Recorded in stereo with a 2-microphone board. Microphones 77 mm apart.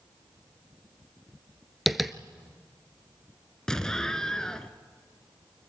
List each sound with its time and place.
1.9 s tapping: centre (ahead or behind), 0.6 m
3.7 s an explosion: 10° left (ahead or behind), 0.8 m